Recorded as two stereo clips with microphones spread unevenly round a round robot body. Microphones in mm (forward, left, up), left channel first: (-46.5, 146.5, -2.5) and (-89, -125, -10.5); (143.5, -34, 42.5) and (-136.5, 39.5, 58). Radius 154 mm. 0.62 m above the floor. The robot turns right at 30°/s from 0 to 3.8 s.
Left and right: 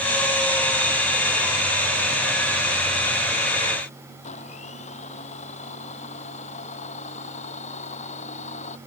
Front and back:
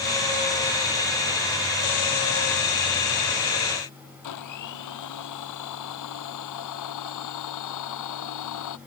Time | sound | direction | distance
4.2 | a blender | 10° left | ?